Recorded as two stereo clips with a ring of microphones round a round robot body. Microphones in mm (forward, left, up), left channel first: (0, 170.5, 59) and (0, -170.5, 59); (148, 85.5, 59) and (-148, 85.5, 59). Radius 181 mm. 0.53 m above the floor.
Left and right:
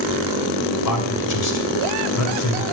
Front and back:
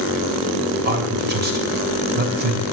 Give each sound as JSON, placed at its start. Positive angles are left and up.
{"t": 0.8, "sound": "a man speaking", "azimuth_deg": 125, "distance_m": 3.0}